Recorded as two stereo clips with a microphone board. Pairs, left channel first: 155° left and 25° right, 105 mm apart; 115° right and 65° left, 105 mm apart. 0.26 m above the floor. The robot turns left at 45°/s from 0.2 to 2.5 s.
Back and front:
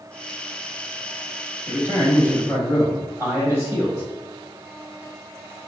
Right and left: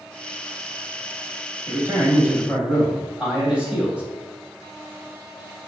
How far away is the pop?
I don't hear a pop.